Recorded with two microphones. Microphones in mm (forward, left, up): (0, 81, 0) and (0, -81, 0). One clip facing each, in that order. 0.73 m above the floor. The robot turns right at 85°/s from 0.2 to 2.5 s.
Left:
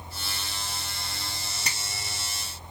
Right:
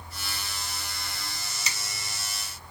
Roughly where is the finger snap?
Left.